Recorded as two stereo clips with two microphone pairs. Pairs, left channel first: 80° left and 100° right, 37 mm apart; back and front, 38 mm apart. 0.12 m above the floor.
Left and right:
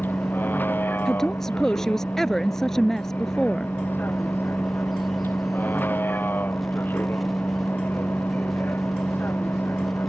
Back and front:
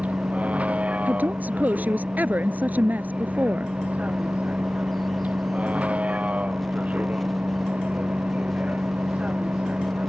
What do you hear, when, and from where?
0.0 s a vehicle: 55° left
1.1 s a woman speaking: 5° left